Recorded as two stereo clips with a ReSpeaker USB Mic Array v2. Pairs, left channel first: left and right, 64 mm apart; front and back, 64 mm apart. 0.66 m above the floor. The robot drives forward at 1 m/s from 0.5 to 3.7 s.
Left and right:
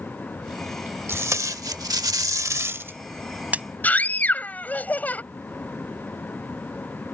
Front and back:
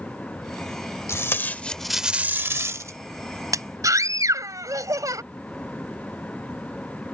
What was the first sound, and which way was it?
Tape being pulled, 45° right.